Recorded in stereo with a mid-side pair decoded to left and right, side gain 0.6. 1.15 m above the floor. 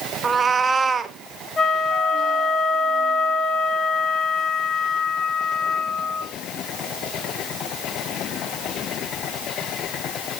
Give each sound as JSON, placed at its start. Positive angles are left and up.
{"t": 0.2, "sound": "a cat meowing", "azimuth_deg": -30, "distance_m": 0.9}
{"t": 1.6, "sound": "a flute", "azimuth_deg": 40, "distance_m": 2.5}